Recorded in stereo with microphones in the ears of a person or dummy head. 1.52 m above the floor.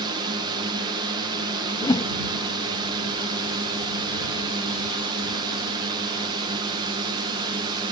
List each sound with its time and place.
0.0 s a drone: 20° right (ahead or behind)
1.8 s a whoosh: 25° left (ahead or behind)